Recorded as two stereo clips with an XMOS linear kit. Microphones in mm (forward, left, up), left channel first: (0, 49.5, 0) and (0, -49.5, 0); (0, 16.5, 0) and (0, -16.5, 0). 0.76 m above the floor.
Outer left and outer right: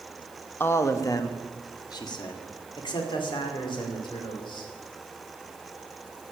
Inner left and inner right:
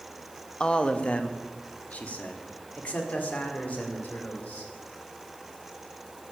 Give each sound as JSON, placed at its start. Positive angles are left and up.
{"t": 0.6, "sound": "a man speaking", "side_deg": 25, "distance_m": 0.8}